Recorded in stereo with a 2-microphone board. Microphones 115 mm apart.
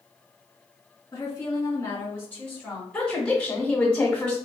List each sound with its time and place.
1.1 s a woman speaking: 25° left (ahead or behind), 1.5 m; by 2.8 s 5° left (ahead or behind), 1.1 m
2.9 s a woman speaking: 10° left (ahead or behind), 1.0 m